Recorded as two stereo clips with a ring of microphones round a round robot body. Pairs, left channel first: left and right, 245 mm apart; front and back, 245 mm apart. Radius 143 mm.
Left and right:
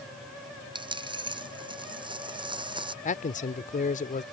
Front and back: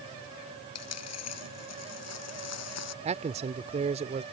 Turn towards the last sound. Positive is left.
turn(degrees=130)